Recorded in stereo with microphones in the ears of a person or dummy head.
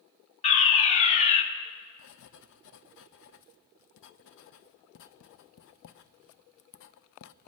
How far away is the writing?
About 0.7 m.